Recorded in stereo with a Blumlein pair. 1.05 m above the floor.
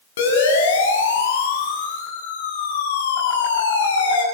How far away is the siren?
About 9.5 m.